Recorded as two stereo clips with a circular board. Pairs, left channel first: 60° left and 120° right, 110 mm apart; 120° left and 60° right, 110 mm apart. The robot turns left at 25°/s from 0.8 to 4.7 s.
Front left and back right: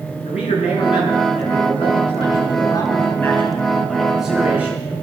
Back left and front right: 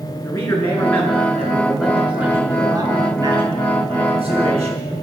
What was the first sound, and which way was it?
A man speaking, 50° left.